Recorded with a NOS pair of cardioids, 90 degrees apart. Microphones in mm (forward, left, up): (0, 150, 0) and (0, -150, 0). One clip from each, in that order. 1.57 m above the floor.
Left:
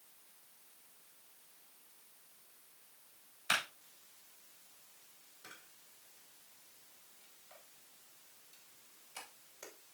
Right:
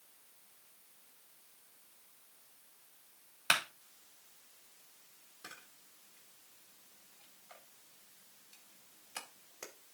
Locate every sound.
3.5 s a clap: 55° right, 3 m
5.4 s a camera shutter: 50° right, 2 m